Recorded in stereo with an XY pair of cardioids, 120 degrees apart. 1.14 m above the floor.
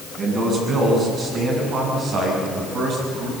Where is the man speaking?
45° right, 8 m; by 3.3 s 70° right, 7 m.